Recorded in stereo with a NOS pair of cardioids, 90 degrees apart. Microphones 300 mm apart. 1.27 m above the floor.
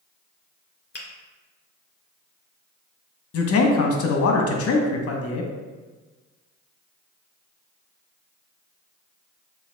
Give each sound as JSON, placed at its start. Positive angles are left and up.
{"t": 0.9, "sound": "a finger snap", "azimuth_deg": 35, "distance_m": 1.8}
{"t": 3.3, "sound": "a man speaking", "azimuth_deg": 50, "distance_m": 0.9}